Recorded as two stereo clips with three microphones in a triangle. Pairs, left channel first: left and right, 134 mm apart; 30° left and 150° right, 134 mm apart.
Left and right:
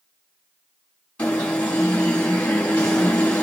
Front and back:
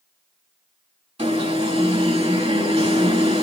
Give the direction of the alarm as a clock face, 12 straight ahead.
6 o'clock.